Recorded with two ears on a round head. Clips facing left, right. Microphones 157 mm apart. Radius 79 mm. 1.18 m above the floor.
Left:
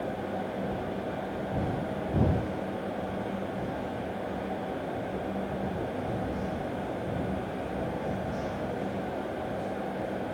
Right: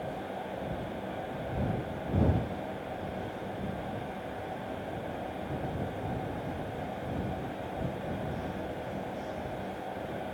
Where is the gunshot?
I don't hear a gunshot.